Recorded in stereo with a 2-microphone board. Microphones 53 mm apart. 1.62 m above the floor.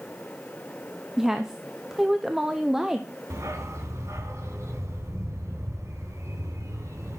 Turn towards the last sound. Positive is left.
turn(degrees=-70)  # may be behind; listen again after turning